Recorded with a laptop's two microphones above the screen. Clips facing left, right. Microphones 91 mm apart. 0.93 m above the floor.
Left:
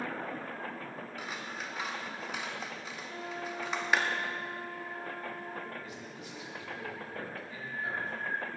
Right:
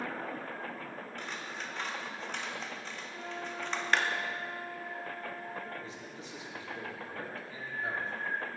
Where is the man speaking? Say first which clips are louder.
Even; 30° right (ahead or behind), 2.5 m.